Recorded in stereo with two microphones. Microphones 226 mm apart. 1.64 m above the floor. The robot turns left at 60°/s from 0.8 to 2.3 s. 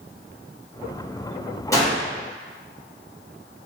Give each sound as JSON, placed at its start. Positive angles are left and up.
{"t": 1.7, "sound": "a gunshot", "side_deg": 15, "distance_m": 1.0}